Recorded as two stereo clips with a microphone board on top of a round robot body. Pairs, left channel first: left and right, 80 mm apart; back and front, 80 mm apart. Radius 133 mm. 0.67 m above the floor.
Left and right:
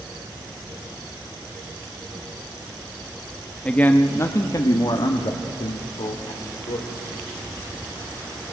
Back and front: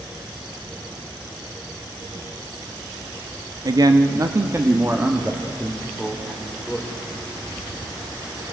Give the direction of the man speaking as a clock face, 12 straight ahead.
11 o'clock.